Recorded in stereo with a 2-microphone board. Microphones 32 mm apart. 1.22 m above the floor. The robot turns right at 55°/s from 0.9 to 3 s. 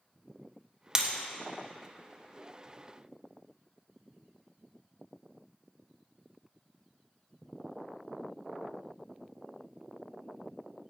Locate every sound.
0.9 s breaking glass: 20° right (ahead or behind), 0.6 m; by 1.1 s 15° right (ahead or behind), 0.6 m